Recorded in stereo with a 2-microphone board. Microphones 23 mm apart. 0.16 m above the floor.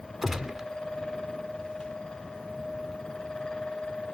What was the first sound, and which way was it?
A gunshot, 5° right (ahead or behind).